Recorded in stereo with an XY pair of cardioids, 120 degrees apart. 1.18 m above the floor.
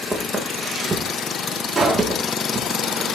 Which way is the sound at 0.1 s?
25° right.